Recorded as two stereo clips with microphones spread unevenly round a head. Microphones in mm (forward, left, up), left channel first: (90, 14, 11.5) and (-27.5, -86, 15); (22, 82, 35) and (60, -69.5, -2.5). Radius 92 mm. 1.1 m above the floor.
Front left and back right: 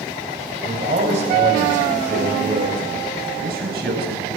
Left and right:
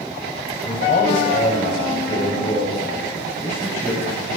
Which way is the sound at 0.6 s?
160° left.